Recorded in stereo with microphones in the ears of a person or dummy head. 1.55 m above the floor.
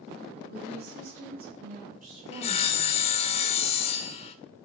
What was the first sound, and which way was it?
A woman speaking, 55° right (ahead or behind).